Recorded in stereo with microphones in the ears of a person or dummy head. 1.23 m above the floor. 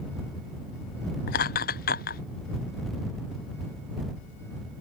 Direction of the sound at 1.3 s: 45° left (ahead or behind).